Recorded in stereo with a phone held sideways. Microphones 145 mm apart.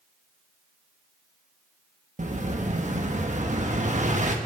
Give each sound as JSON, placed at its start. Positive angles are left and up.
{"t": 2.2, "sound": "an explosion", "side_deg": -55, "distance_m": 1.4}